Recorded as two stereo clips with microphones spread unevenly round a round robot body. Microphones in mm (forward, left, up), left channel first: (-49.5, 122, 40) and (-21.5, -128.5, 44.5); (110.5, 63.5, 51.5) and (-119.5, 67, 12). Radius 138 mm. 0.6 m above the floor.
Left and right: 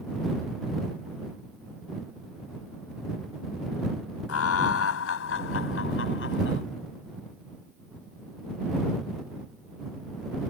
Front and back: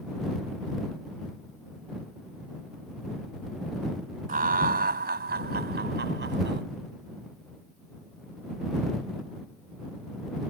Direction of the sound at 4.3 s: 125° left.